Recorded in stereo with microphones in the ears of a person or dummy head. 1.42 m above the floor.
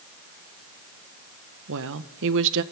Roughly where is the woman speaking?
Right.